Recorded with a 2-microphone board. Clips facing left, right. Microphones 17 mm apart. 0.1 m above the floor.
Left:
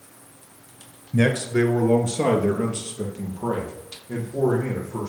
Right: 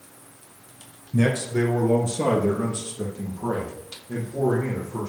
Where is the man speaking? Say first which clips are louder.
Left 2 dB; 20° left (ahead or behind), 1.8 m; by 5.1 s 30° left (ahead or behind), 5.5 m.